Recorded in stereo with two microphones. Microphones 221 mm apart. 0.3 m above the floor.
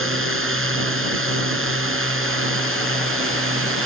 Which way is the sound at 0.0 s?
70° right (ahead or behind).